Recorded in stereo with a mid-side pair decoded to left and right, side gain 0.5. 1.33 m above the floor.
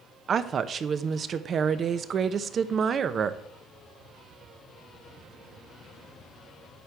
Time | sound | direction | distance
0.3 | a woman speaking | 50° right | 0.9 m